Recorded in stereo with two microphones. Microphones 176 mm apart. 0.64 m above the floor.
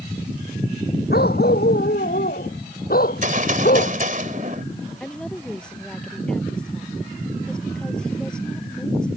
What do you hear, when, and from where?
1.1 s a dog barking: 65° left (ahead or behind); by 4.0 s 55° left (ahead or behind)
3.0 s a gunshot: 50° right (ahead or behind)
5.0 s a woman speaking: 5° left (ahead or behind)